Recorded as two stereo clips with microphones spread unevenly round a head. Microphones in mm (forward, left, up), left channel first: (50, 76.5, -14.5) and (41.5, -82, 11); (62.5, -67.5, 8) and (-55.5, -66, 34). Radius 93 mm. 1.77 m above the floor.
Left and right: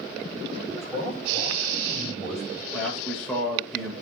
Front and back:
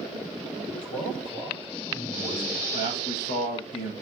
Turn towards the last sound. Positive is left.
turn(degrees=0)